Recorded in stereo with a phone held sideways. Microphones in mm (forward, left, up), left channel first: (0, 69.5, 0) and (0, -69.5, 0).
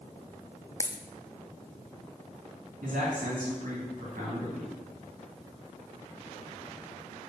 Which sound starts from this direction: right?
A man speaking, at 2.8 s.